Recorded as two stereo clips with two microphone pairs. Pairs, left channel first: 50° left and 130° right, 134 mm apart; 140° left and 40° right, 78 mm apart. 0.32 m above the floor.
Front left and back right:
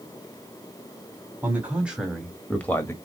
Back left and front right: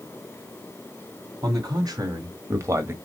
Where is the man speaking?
55° right, 2.5 m; by 2.9 s 5° right, 1.4 m.